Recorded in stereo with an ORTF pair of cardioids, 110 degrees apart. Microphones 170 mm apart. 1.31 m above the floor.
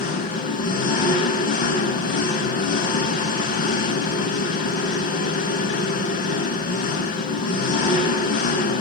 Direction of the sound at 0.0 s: 60° left.